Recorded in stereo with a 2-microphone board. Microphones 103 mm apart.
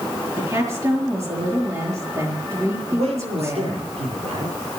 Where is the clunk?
I don't hear a clunk.